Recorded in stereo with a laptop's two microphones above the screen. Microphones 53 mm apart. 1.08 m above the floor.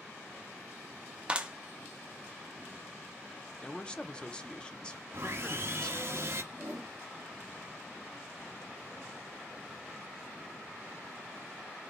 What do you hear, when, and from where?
1.3 s a clap: 20° right (ahead or behind), 0.6 m
3.6 s a man speaking: 15° left (ahead or behind), 0.5 m
5.1 s sawing: 55° right (ahead or behind), 0.8 m
6.5 s a whoosh: 75° right (ahead or behind), 1.9 m